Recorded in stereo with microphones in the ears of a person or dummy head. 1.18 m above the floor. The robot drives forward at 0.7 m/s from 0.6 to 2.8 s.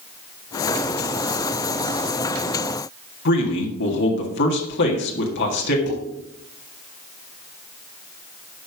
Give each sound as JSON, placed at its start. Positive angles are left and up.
{"t": 3.2, "sound": "a man speaking", "side_deg": 55, "distance_m": 1.8}
{"t": 5.9, "sound": "dishes clattering", "side_deg": 55, "distance_m": 6.0}